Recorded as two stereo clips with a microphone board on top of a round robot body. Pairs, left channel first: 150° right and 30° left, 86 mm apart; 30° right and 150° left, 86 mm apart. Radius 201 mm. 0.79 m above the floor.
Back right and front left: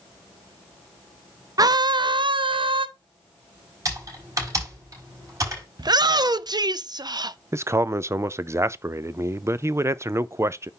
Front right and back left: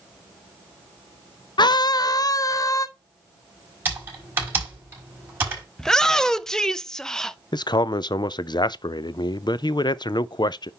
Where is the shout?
50° left, 0.8 m.